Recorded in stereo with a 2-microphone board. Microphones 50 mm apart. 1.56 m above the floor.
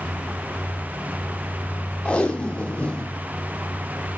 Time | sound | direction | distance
2.0 | tape being pulled | 25° left (ahead or behind) | 0.7 m